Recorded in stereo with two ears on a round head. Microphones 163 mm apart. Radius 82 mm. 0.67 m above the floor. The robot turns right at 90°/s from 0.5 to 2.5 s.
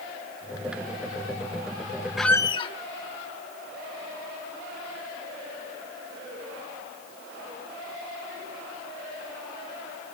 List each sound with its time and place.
2.2 s a squeak: centre (ahead or behind), 0.5 m; by 2.7 s 25° left (ahead or behind), 0.5 m